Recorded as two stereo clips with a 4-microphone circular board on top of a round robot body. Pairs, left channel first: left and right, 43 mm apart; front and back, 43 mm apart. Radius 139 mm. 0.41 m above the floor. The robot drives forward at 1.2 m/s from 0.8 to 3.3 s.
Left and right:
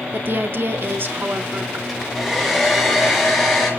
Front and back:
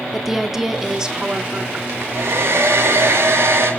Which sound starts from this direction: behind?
A hair dryer, at 1.9 s.